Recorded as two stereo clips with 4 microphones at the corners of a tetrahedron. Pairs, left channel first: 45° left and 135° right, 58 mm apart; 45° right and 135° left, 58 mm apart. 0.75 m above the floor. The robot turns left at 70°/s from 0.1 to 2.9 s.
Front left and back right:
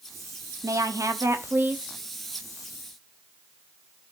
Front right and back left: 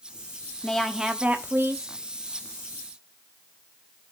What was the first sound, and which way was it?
A woman speaking, 115° right.